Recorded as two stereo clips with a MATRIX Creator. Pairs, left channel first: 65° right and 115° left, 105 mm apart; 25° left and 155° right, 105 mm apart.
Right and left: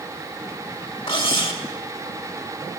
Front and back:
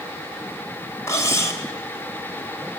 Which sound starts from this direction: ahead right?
Cutlery clinking, at 1.1 s.